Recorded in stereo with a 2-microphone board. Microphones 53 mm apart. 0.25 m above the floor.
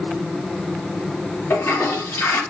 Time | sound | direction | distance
1.5 | a toilet flushing | 60° left (ahead or behind) | 3.5 m